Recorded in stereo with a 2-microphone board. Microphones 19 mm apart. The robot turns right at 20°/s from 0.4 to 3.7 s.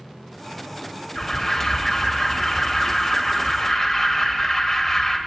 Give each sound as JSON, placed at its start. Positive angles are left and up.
{"t": 1.1, "sound": "an alarm", "side_deg": 15, "distance_m": 0.9}